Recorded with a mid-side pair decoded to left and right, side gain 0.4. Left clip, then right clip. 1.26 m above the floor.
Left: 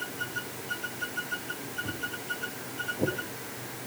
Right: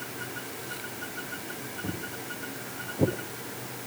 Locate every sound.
1.8 s footsteps: 60° right, 5 m; by 3.9 s 65° right, 4 m